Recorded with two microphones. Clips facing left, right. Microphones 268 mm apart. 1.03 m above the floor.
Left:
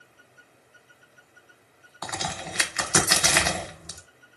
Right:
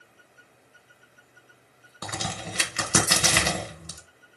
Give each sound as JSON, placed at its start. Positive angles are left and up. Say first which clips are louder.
{"t": 2.0, "sound": "a crack", "louder": "even", "side_deg": -35, "distance_m": 1.3}